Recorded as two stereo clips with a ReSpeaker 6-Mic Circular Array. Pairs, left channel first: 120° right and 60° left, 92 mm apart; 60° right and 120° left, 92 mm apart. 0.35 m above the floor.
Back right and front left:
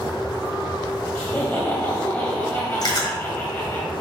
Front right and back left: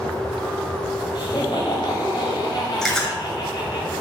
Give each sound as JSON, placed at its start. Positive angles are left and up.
{"t": 1.1, "sound": "laughter", "azimuth_deg": -60, "distance_m": 1.5}
{"t": 2.8, "sound": "chewing", "azimuth_deg": -145, "distance_m": 1.7}